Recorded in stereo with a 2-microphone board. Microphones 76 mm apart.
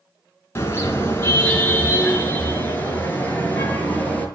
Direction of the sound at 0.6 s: 30° left (ahead or behind).